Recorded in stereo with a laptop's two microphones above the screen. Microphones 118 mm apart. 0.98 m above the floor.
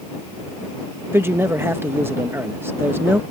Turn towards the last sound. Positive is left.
turn(degrees=-20)  # may be behind; listen again after turning